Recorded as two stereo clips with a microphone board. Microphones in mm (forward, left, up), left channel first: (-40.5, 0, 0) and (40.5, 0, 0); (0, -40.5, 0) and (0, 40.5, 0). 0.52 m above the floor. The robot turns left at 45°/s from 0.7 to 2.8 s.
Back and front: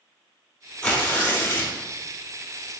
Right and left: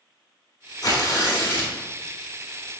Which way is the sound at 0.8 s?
105° right.